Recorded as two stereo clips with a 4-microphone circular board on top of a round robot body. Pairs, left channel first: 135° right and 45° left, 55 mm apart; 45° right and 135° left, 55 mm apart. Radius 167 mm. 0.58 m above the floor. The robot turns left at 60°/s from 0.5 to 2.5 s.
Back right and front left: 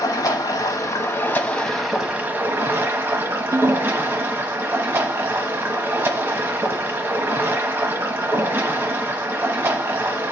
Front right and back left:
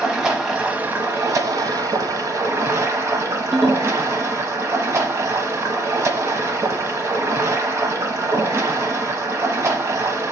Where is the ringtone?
55° left, 0.6 m.